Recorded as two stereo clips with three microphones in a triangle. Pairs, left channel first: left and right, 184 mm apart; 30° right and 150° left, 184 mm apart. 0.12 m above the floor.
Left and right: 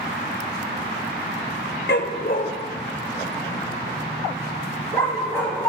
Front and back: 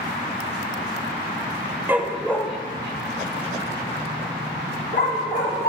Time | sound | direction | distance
1.9 | a dog barking | 70° left | 0.7 m